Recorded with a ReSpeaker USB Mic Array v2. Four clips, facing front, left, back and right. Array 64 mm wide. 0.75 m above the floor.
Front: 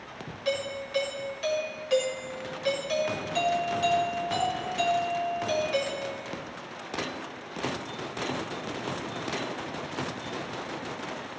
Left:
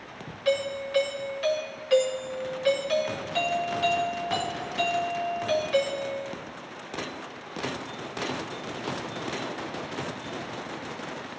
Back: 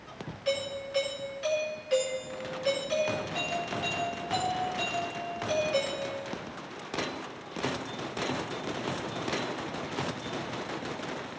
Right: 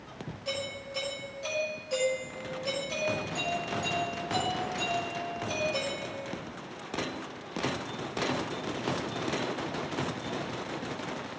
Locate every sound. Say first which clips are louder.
0.5 s a doorbell: left 11 dB, front 1 dB; 75° left, 5 m